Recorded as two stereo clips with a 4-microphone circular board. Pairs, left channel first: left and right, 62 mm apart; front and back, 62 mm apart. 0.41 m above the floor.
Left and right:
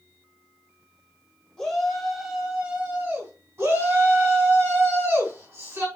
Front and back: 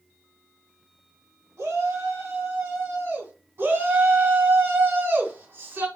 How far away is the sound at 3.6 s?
About 3 m.